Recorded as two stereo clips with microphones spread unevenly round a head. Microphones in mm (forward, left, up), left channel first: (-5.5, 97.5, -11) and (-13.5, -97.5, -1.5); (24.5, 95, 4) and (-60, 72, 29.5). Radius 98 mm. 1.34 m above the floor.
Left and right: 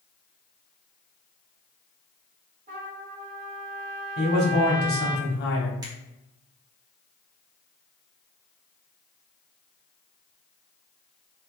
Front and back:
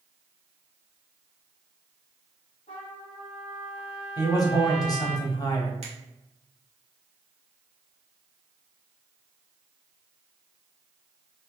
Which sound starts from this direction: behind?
A finger snap, at 5.8 s.